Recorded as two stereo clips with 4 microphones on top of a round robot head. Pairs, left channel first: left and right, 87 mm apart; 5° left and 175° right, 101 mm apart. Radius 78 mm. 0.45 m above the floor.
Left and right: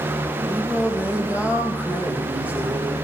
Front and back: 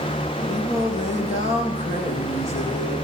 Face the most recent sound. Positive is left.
turn(degrees=-15)